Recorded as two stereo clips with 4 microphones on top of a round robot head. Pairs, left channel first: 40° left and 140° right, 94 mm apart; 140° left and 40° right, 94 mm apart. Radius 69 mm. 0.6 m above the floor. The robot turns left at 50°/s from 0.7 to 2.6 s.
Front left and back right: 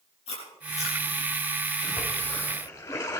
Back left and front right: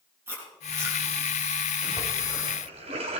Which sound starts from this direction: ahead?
A splash, at 1.8 s.